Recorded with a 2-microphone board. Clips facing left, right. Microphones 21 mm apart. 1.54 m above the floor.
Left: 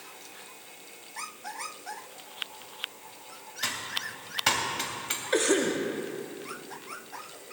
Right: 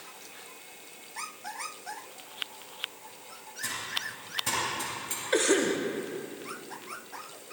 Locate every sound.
3.6 s typing on a keyboard: 65° left (ahead or behind), 2 m
5.3 s a cough: centre (ahead or behind), 1.0 m